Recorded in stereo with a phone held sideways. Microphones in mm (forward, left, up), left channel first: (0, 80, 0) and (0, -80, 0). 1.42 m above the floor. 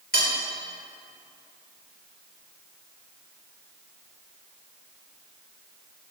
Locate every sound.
0.1 s cutlery clinking: 80° left, 3.5 m